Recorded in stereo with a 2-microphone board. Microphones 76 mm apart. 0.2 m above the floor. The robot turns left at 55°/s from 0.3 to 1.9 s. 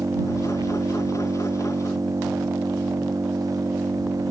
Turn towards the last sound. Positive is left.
turn(degrees=-135)